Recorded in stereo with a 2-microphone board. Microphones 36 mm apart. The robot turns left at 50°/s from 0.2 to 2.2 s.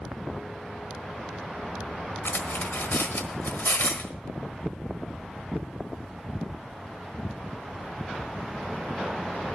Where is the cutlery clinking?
80° left, 1.2 m.